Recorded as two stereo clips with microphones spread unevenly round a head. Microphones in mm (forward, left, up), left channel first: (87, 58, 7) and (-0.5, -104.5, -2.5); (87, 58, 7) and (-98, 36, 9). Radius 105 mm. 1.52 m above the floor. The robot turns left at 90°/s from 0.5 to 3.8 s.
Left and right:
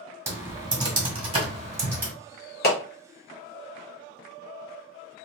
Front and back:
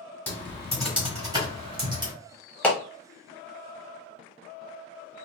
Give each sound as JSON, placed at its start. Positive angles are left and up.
{"t": 0.3, "sound": "typing on a keyboard", "azimuth_deg": -55, "distance_m": 1.4}
{"t": 2.6, "sound": "a clap", "azimuth_deg": 90, "distance_m": 1.0}